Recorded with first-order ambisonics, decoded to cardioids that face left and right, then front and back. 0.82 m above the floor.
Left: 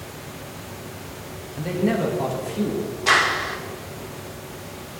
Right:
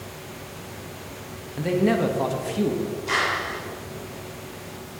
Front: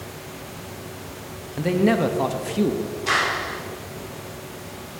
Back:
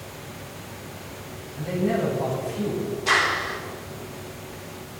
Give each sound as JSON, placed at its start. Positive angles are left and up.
{"t": 1.6, "sound": "a man speaking", "azimuth_deg": -10, "distance_m": 1.0}
{"t": 3.1, "sound": "a clap", "azimuth_deg": 95, "distance_m": 1.7}